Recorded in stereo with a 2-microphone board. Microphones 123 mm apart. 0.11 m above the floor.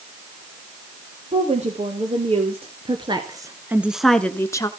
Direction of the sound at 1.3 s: 65° right (ahead or behind).